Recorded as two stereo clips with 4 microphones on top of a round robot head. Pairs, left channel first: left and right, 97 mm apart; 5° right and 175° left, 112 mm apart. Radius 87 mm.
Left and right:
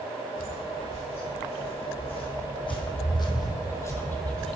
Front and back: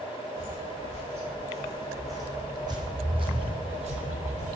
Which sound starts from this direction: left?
Footsteps, at 0.3 s.